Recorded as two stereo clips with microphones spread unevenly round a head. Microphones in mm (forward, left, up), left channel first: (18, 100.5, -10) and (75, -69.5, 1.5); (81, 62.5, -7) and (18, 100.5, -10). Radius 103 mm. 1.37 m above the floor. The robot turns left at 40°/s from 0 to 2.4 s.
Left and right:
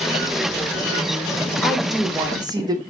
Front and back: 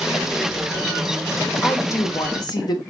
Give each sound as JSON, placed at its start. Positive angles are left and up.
{"t": 1.6, "sound": "a woman speaking", "azimuth_deg": 30, "distance_m": 0.9}